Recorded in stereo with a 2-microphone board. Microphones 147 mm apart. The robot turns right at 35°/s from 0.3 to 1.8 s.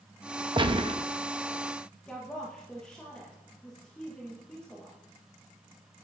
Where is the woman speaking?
5° left (ahead or behind), 1.8 m.